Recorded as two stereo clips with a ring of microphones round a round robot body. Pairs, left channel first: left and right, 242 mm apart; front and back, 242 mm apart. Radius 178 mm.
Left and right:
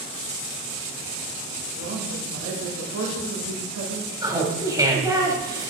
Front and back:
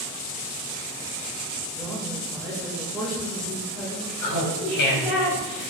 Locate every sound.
1.7 s a woman speaking: 85° right, 3 m
4.2 s laughter: 15° right, 4 m